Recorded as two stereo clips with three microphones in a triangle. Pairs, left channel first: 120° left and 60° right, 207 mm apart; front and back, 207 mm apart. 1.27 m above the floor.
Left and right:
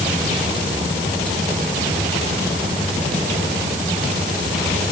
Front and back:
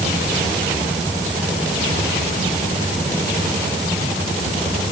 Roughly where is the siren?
I don't hear a siren.